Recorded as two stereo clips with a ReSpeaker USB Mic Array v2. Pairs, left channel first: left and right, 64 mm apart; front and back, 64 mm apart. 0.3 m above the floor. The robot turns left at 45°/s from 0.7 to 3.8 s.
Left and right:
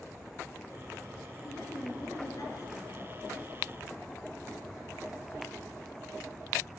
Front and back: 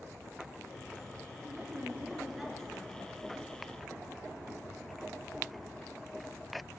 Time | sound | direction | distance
1.4 | a woman speaking | 135° left | 5 m